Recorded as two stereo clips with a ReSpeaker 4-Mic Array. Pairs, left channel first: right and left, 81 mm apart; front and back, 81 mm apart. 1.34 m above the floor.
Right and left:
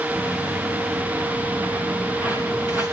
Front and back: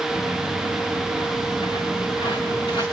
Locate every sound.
0.1 s footsteps: 10° left, 5.5 m; by 2.8 s 25° left, 5.5 m